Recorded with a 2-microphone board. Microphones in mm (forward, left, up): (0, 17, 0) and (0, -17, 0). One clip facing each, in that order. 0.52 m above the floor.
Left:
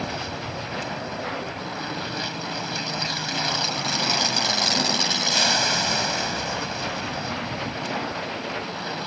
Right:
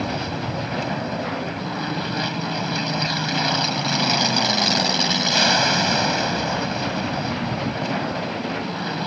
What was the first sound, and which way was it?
An aircraft, 15° right (ahead or behind).